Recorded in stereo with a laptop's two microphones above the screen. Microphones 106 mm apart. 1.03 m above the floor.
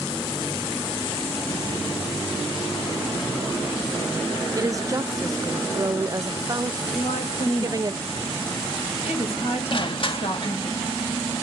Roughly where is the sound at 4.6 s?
Right.